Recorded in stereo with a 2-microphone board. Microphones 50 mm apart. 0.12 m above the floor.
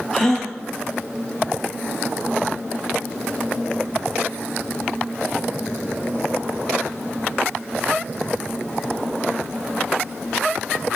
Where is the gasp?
5° left (ahead or behind), 1.3 m.